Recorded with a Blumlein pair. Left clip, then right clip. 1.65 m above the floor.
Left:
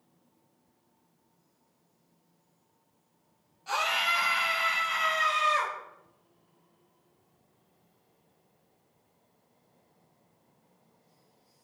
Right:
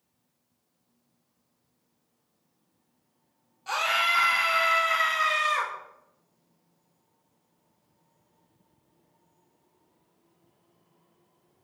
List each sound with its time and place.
3.7 s a scream: 15° right, 0.9 m; by 5.7 s 65° right, 1.5 m